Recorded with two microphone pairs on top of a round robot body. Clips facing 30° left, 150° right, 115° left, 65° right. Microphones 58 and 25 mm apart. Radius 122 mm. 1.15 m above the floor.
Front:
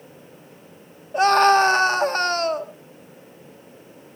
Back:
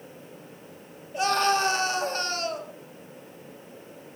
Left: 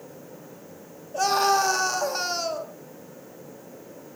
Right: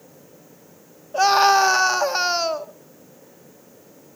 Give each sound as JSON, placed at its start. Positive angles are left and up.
{"t": 1.1, "sound": "a scream", "azimuth_deg": -10, "distance_m": 2.0}